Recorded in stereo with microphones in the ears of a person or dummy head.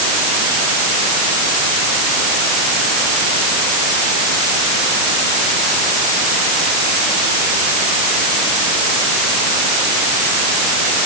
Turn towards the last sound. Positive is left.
No sound to turn to.